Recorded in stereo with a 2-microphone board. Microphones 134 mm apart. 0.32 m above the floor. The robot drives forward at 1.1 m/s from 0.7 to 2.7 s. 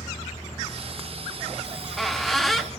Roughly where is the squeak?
Centre.